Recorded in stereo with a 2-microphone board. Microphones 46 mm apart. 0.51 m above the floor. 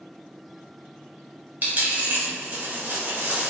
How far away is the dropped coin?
About 1.0 m.